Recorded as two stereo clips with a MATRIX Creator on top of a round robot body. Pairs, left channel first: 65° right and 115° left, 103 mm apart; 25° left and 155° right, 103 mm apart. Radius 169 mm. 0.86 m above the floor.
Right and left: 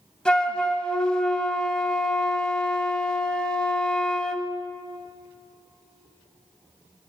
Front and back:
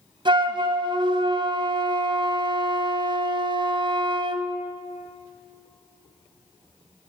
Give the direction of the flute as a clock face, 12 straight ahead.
5 o'clock.